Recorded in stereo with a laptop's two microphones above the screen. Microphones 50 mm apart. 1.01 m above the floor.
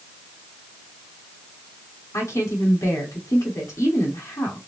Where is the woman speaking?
85° left, 2.5 m.